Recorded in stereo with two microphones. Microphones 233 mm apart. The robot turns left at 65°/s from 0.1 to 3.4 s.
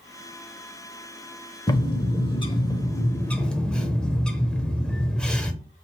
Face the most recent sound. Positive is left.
turn(degrees=5)  # may be behind; listen again after turning